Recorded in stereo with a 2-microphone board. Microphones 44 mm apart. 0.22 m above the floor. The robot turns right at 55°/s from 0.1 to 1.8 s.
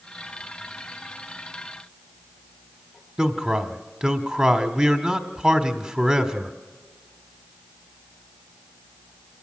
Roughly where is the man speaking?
Right.